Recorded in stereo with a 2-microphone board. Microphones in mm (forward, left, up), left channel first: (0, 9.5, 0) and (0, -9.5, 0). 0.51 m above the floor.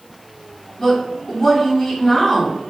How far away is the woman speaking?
About 1.4 m.